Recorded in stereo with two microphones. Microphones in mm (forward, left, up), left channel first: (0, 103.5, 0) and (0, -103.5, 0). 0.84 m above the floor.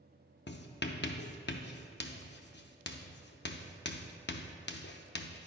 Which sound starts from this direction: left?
Writing, at 0.5 s.